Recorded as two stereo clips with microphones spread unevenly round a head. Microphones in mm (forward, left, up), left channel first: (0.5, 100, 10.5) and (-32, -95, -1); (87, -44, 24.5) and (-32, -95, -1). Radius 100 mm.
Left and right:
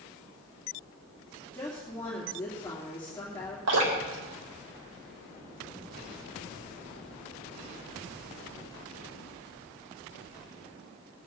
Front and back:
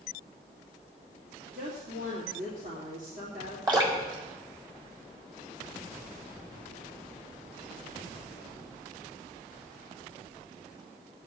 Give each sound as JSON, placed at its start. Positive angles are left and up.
{"t": 1.5, "sound": "a woman speaking", "azimuth_deg": 160, "distance_m": 3.0}
{"t": 3.7, "sound": "dripping", "azimuth_deg": -100, "distance_m": 4.0}